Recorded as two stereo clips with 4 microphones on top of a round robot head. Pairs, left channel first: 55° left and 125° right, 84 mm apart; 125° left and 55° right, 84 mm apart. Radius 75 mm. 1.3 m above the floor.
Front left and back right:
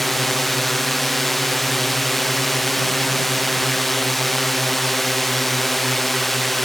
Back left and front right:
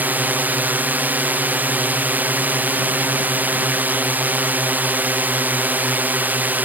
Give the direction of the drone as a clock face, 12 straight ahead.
1 o'clock.